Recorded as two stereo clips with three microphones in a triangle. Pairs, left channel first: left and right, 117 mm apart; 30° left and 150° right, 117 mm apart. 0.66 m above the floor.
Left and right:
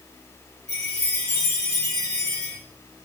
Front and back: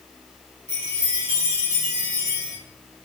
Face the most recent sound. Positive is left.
turn(degrees=-95)